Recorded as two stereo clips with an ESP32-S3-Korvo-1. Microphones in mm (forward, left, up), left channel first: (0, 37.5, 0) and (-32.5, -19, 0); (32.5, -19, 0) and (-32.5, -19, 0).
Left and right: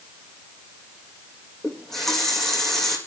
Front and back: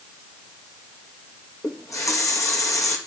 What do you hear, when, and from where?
1.6 s a running tap: 25° right, 3.5 m